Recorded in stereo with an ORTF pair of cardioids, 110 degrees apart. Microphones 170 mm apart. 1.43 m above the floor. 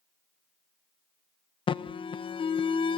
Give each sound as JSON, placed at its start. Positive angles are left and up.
{"t": 1.7, "sound": "an alarm", "azimuth_deg": 30, "distance_m": 0.8}